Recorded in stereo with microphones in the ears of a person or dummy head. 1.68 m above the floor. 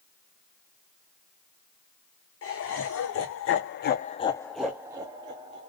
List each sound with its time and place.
2.4 s laughter: 70° left (ahead or behind), 1.3 m; by 5.7 s 35° right (ahead or behind), 1.1 m